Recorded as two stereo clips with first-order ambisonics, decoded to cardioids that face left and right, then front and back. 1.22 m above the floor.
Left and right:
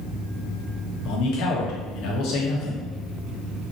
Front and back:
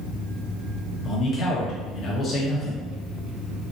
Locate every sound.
1.1 s a man speaking: 65° left, 1.4 m